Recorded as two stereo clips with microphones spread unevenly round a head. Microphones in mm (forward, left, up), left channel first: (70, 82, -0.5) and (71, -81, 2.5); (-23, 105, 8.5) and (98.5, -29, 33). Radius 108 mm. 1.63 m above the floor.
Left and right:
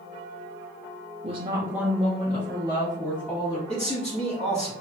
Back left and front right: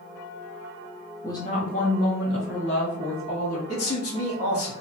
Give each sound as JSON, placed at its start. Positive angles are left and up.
{"t": 1.2, "sound": "a woman speaking", "azimuth_deg": -145, "distance_m": 0.6}
{"t": 3.7, "sound": "a man speaking", "azimuth_deg": 150, "distance_m": 1.5}